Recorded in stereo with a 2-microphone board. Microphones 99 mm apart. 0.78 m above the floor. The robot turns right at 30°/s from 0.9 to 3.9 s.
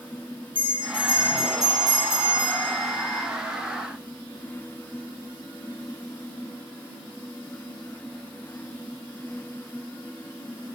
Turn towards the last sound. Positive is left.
turn(degrees=155)